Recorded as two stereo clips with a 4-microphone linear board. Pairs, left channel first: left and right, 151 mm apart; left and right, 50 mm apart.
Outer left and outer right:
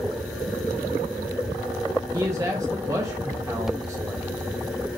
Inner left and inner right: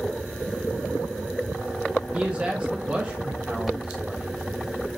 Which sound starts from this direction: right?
A man speaking, at 2.1 s.